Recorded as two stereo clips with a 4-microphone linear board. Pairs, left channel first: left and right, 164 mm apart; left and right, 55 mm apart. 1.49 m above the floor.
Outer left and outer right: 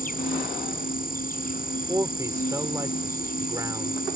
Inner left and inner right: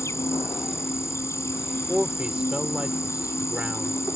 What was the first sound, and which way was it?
An insect, 60° left (ahead or behind).